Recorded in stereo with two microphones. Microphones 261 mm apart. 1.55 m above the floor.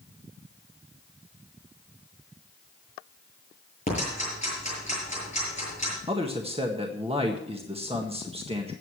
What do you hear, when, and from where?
3.9 s ticking: 25° left (ahead or behind), 8 m
6.1 s a man speaking: 20° right (ahead or behind), 1.6 m